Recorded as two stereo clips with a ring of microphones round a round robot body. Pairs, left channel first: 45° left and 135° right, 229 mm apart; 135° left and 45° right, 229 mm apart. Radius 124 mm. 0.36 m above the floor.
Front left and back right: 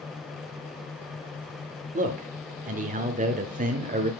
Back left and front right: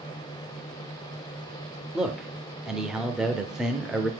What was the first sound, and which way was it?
A man speaking, 130° right.